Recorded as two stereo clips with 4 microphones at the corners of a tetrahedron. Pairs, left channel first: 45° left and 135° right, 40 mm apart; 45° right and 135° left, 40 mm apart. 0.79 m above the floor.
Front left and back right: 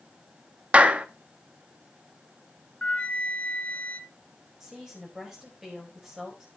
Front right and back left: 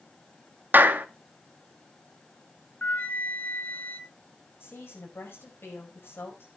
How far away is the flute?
About 1.1 m.